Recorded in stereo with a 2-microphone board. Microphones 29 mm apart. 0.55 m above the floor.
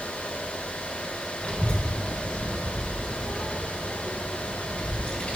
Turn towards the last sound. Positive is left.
turn(degrees=55)  # may be behind; listen again after turning